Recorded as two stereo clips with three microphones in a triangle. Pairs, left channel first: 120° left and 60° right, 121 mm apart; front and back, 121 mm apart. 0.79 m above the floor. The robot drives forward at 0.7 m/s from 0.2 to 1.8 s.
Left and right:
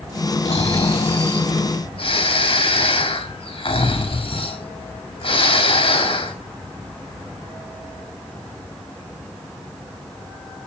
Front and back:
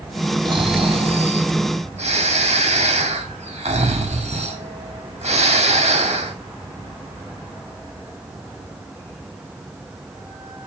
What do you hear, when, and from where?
0.5 s snoring: 135° left, 0.9 m; by 6.3 s 160° left, 1.7 m